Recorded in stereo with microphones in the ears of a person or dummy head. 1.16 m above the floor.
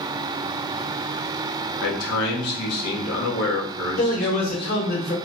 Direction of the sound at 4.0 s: 50° left (ahead or behind).